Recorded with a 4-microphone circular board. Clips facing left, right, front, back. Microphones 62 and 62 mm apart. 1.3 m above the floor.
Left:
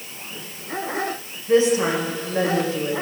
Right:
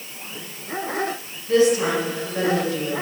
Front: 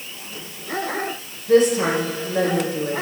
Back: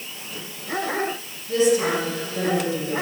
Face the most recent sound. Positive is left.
turn(degrees=25)